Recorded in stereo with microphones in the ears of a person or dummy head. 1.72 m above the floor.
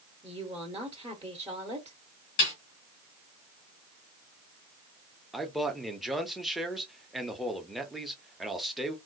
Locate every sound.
0.2 s a woman speaking: 20° right (ahead or behind), 1.2 m
2.4 s a snare drum: 40° left (ahead or behind), 2.5 m
5.3 s a man speaking: centre (ahead or behind), 0.8 m